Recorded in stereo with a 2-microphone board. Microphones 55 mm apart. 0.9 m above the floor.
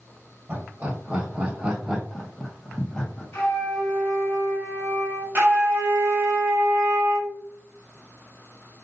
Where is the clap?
I don't hear a clap.